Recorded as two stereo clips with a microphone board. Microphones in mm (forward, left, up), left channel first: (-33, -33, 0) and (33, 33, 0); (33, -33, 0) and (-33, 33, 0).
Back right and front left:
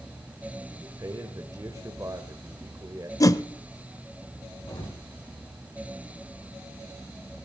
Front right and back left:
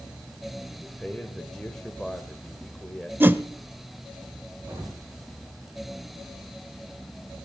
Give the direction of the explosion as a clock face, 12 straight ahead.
5 o'clock.